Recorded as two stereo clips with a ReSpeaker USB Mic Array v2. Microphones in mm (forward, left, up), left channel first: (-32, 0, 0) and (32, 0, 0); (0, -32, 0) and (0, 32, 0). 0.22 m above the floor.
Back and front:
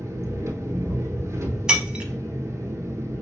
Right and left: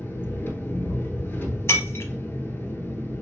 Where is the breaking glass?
70° right, 0.6 m.